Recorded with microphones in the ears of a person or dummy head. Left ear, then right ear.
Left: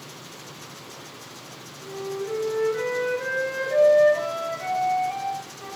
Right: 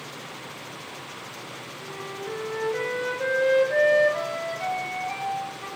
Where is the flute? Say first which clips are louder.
Left 5 dB; 30° right (ahead or behind), 2.5 m.